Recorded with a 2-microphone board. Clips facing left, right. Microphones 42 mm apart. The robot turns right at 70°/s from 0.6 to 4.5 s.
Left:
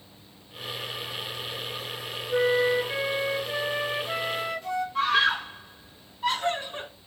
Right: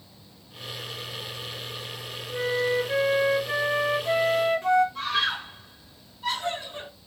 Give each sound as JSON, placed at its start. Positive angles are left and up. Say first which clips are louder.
{"t": 2.3, "sound": "a flute", "louder": "left 3 dB", "azimuth_deg": 140, "distance_m": 0.9}
{"t": 5.0, "sound": "a scream", "louder": "left 4 dB", "side_deg": 40, "distance_m": 1.7}